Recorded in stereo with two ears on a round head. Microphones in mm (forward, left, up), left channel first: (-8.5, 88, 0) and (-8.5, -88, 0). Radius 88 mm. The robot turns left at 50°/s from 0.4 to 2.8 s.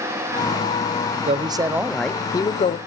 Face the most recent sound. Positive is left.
turn(degrees=140)